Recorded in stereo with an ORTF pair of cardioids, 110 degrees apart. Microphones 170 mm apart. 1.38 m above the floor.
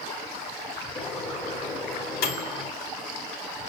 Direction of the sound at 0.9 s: 70° left.